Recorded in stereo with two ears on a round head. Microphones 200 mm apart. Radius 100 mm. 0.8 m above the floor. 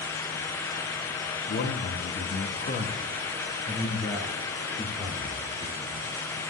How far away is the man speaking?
About 1.4 m.